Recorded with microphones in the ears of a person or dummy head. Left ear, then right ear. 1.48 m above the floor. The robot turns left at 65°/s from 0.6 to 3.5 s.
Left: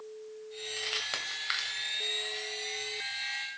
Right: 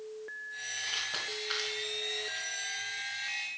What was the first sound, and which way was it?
Crumpling, 50° left (ahead or behind).